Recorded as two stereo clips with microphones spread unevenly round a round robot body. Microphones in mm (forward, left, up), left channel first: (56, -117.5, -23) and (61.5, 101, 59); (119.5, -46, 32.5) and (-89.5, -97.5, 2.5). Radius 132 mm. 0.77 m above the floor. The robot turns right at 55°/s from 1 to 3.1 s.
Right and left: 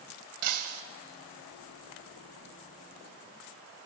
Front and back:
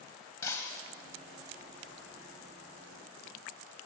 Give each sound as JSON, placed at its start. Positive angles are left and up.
{"t": 0.4, "sound": "breaking glass", "azimuth_deg": 90, "distance_m": 1.9}